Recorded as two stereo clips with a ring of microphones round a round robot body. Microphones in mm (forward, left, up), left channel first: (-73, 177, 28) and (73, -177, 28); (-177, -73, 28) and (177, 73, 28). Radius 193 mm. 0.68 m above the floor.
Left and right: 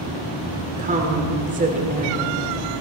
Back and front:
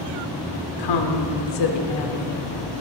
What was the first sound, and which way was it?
A woman speaking, 135° right.